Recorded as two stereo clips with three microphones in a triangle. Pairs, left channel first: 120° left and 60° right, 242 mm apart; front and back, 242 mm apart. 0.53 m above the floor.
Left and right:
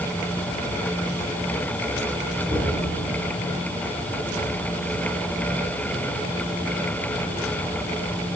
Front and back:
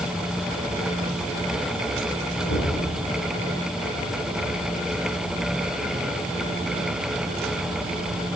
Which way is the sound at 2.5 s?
15° left.